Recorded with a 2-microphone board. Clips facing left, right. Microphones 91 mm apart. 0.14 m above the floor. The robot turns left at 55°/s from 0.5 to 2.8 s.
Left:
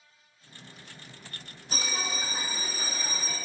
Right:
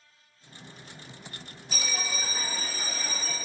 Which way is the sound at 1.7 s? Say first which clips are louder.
Left 1 dB; 80° left.